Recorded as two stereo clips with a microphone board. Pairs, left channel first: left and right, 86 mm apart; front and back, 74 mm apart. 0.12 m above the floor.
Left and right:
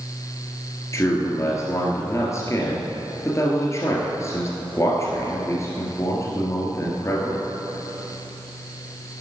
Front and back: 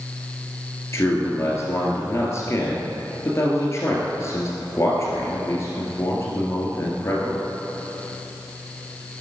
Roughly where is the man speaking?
Ahead left.